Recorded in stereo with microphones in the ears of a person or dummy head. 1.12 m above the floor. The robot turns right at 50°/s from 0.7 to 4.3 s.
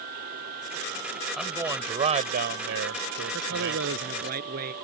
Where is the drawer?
No drawer in this recording.